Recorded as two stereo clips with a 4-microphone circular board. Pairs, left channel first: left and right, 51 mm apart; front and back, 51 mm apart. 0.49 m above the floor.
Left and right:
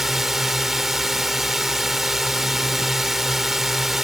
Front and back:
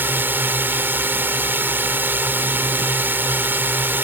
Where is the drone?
170° right.